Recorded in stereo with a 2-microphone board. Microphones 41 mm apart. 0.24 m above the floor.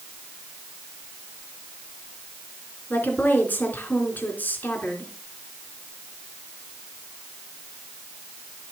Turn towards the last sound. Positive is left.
turn(degrees=45)  # may be behind; listen again after turning